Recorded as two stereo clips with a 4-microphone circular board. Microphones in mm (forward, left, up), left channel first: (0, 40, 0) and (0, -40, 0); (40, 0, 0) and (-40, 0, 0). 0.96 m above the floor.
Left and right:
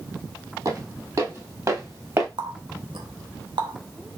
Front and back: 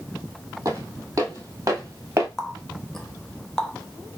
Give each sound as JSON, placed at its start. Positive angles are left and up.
{"t": 0.7, "sound": "footsteps", "azimuth_deg": -130, "distance_m": 2.5}
{"t": 2.4, "sound": "a running tap", "azimuth_deg": -85, "distance_m": 0.9}